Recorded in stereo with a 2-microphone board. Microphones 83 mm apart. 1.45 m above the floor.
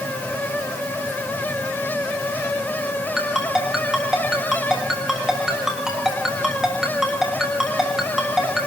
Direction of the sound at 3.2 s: 5° right (ahead or behind).